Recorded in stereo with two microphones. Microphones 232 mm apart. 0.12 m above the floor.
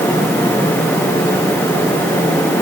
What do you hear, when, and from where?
Only background noise.